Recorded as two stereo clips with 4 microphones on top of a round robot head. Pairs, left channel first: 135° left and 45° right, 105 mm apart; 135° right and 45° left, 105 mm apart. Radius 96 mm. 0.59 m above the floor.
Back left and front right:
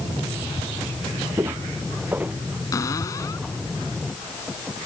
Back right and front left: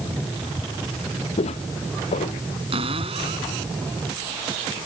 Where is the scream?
No scream in this recording.